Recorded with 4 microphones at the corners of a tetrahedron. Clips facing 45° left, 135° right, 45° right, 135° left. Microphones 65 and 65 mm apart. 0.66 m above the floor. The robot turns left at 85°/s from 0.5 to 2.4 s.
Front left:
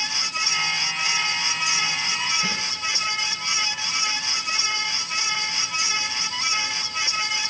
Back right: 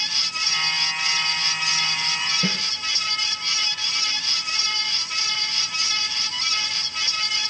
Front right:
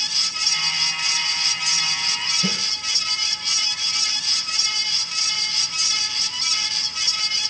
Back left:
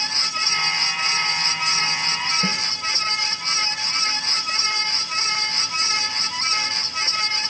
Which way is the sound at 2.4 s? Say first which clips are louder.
Back right 1 dB, back left 2 dB; 175° right.